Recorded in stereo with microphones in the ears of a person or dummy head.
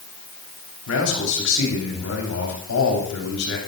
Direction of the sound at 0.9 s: 80° left.